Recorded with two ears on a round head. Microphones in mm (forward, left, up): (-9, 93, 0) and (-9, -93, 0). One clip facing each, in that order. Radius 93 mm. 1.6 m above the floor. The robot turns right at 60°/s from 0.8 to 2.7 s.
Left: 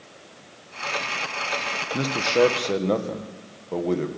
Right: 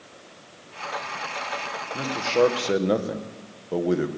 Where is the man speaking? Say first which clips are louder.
Left 1 dB; 145° left, 1.6 m; by 4.1 s 170° right, 1.6 m.